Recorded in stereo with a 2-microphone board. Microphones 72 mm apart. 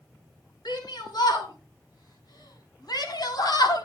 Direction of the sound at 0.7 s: 75° left (ahead or behind).